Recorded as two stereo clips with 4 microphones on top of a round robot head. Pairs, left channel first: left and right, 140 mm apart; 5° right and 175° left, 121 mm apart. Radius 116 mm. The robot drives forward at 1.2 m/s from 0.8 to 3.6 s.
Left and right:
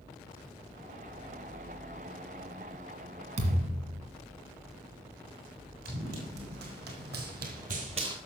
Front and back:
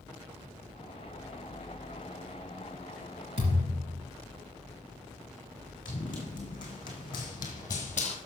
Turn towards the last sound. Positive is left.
turn(degrees=-85)